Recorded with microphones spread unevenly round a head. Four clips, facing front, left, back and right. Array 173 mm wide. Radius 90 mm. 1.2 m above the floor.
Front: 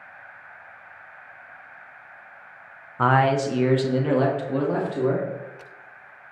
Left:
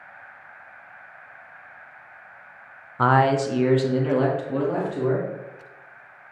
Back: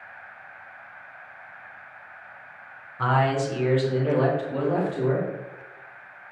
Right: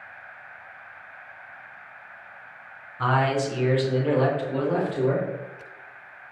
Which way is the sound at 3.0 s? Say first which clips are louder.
Left 4 dB, front 3 dB; 50° left.